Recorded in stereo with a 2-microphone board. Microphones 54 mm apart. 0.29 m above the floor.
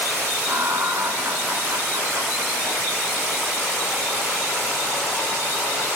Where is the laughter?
65° right (ahead or behind), 2 m.